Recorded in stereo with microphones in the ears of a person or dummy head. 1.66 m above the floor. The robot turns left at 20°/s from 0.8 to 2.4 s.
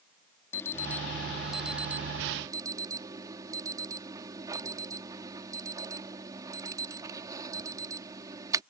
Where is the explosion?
No explosion in this recording.